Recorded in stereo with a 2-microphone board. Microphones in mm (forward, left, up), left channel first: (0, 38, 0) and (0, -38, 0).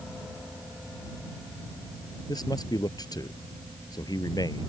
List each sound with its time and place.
2.3 s a man speaking: 60° left (ahead or behind)